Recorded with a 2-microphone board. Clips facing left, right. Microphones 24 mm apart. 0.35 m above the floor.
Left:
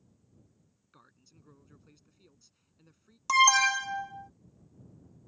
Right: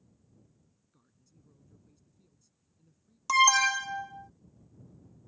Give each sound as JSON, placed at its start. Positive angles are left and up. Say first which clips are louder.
{"t": 0.9, "sound": "a man speaking", "louder": "left 8 dB", "side_deg": 55}
{"t": 3.3, "sound": "an alarm", "louder": "even", "side_deg": 0}